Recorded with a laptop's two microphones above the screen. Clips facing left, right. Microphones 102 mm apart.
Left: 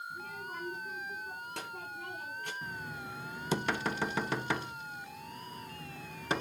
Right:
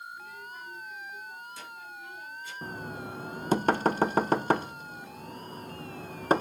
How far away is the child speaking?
About 4.5 m.